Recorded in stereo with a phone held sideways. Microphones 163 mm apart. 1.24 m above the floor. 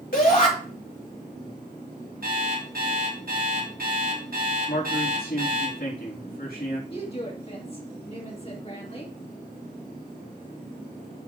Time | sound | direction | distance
0.1 | a shout | 65° left (ahead or behind) | 3 m
2.2 | an alarm clock | 70° right (ahead or behind) | 6 m
4.7 | a man speaking | 80° left | 3 m
6.9 | a woman speaking | 40° left (ahead or behind) | 2.5 m